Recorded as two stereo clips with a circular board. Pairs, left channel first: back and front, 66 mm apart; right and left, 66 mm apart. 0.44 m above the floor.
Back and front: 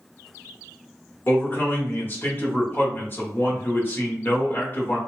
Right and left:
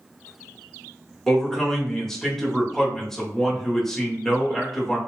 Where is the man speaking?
170° right, 0.9 m.